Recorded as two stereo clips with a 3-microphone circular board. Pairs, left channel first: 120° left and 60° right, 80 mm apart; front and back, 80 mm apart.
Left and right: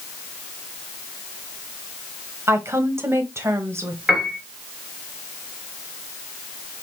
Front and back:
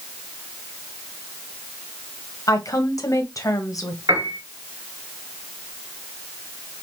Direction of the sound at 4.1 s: 145° right.